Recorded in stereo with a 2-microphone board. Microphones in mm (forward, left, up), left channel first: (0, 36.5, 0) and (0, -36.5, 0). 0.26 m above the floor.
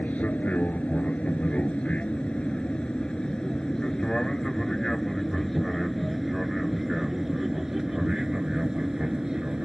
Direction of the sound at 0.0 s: 20° left (ahead or behind).